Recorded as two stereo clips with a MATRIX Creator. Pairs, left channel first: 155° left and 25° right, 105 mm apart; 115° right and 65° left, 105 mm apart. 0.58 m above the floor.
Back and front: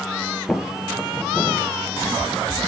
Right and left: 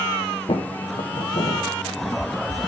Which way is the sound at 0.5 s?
120° right.